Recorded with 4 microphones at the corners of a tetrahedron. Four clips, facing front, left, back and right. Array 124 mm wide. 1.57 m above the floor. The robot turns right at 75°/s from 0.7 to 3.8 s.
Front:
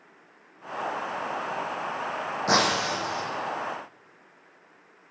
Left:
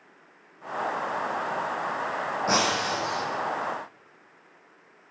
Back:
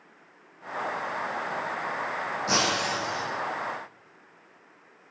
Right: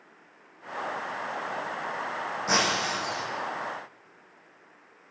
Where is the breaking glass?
10° left, 3 m; by 3.3 s 70° left, 3 m.